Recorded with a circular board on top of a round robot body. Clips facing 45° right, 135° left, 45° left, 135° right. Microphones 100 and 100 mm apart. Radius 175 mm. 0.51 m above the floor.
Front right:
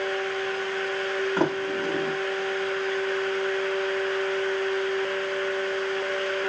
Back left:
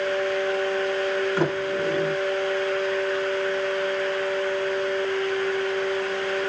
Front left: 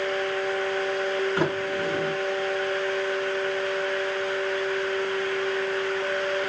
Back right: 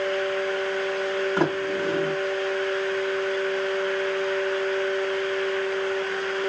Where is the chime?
I don't hear a chime.